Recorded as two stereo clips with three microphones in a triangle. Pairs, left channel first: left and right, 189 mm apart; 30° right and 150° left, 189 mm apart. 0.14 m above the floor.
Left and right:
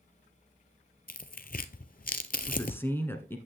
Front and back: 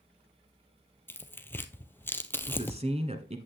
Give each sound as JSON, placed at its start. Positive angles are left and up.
{"t": 1.1, "sound": "tearing paper", "azimuth_deg": 50, "distance_m": 0.6}
{"t": 2.5, "sound": "a man speaking", "azimuth_deg": 160, "distance_m": 1.2}